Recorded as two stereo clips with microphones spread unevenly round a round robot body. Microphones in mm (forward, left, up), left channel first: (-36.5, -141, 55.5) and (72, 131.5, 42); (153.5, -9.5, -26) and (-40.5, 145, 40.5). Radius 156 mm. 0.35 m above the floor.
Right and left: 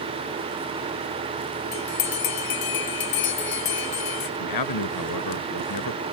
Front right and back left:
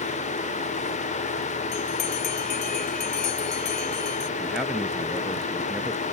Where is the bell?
105° right.